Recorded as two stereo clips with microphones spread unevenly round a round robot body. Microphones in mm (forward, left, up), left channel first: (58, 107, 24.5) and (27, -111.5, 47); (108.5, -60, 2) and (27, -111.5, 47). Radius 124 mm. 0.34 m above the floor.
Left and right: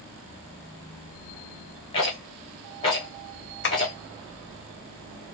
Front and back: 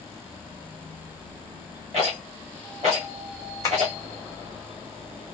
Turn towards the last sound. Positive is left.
turn(degrees=60)